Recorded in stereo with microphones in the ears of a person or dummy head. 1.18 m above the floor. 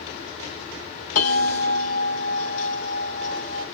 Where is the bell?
40° left (ahead or behind), 1.6 m.